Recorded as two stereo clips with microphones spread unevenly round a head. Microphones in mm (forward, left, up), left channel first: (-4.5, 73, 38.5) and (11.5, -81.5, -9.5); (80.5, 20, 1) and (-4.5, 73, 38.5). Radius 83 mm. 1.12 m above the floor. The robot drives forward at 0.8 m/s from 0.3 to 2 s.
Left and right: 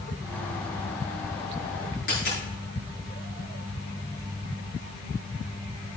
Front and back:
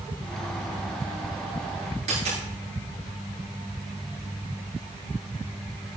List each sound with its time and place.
2.1 s a dropped coin: 140° left, 8.5 m